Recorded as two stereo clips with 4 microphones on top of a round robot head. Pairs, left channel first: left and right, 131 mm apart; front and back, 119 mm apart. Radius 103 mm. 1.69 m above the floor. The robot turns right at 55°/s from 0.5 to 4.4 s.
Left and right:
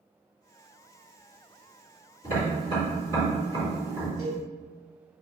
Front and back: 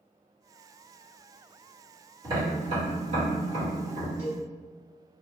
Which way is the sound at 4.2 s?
90° right.